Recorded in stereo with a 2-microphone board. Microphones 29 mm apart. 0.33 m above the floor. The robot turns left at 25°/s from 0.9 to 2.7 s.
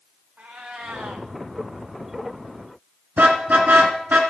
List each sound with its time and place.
0.4 s a cat meowing: 55° right (ahead or behind), 2 m; by 1.3 s 65° right (ahead or behind), 2 m
3.2 s a car horn: 70° right (ahead or behind), 2.5 m